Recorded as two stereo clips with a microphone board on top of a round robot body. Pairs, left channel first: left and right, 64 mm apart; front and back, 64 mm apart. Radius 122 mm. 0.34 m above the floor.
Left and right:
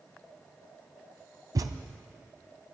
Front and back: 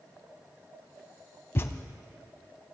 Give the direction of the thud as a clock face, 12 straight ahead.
2 o'clock.